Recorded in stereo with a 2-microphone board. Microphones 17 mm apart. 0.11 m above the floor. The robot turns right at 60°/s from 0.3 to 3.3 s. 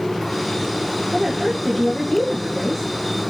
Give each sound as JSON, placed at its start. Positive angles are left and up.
{"t": 1.1, "sound": "a woman speaking", "azimuth_deg": -25, "distance_m": 2.0}